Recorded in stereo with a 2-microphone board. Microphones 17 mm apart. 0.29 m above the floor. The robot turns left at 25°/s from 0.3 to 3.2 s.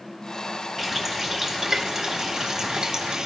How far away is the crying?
No crying in this recording.